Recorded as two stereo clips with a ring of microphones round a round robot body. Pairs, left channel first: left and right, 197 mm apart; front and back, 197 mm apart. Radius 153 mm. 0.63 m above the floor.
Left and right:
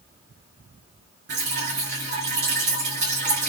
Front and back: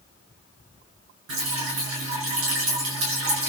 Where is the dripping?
145° right, 6 m.